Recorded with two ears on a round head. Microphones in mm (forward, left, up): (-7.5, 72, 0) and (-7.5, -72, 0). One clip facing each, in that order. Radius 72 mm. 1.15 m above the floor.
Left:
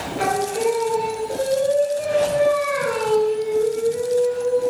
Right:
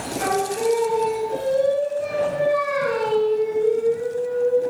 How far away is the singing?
About 1.0 m.